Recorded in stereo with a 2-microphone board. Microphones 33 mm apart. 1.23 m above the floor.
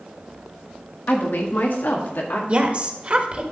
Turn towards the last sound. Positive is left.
turn(degrees=-40)  # may be behind; listen again after turning